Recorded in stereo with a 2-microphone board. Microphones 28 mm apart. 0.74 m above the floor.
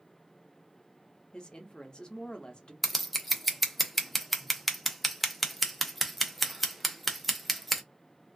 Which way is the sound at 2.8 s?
Centre (ahead or behind).